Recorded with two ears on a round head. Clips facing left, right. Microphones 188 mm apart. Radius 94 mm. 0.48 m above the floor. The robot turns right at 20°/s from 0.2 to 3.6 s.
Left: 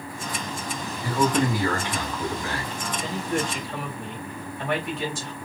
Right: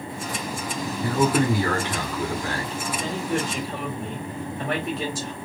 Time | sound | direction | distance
1.0 | a man speaking | 115° right | 1.6 m
2.9 | a man speaking | 25° right (ahead or behind) | 1.8 m